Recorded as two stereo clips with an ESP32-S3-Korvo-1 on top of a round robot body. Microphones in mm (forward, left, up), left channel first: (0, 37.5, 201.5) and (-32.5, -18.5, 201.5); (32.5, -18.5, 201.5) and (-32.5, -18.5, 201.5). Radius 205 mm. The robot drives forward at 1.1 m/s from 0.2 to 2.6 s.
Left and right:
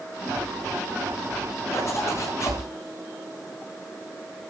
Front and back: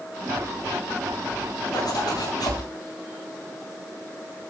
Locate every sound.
1.7 s a zipper: 15° left, 9 m